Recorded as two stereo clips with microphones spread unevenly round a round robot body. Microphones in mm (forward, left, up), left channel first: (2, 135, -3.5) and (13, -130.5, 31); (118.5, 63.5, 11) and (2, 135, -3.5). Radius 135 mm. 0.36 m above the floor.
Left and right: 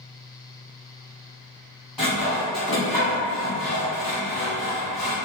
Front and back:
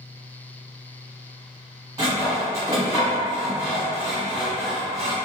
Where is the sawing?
165° left, 1.2 m.